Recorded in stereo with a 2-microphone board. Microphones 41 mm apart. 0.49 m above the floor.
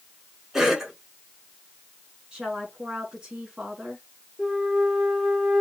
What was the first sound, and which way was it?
A cough, 15° right (ahead or behind).